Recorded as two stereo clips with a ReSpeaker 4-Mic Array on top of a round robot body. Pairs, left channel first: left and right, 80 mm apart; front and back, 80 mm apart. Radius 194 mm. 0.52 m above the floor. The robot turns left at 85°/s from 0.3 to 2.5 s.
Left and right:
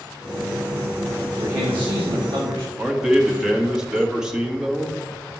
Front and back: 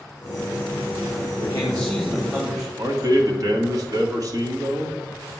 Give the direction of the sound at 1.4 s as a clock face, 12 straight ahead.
1 o'clock.